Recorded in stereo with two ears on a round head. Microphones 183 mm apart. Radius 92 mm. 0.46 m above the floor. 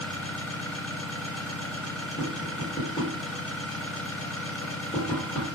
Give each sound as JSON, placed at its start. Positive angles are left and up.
{"t": 0.0, "sound": "an engine running", "side_deg": 5, "distance_m": 1.3}
{"t": 2.2, "sound": "tapping", "side_deg": 30, "distance_m": 1.5}